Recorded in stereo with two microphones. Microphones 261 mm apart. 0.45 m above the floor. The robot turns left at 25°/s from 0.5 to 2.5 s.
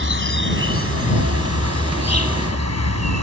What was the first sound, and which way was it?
An insect, 50° right.